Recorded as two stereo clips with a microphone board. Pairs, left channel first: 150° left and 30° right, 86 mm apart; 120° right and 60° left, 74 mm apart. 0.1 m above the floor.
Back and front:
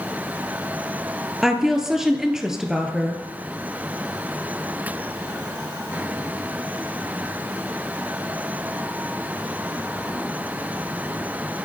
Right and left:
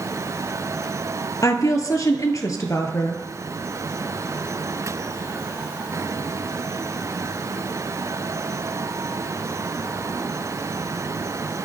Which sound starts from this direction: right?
A woman speaking, at 1.4 s.